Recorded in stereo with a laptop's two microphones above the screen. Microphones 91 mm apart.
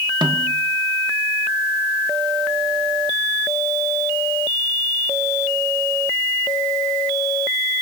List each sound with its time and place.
0.2 s a snare drum: 60° right (ahead or behind), 1.0 m